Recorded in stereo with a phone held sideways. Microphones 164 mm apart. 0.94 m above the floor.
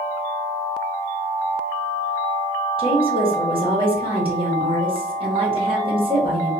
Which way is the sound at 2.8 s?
35° right (ahead or behind).